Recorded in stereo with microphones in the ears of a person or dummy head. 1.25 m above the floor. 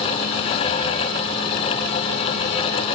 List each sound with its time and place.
Only background noise.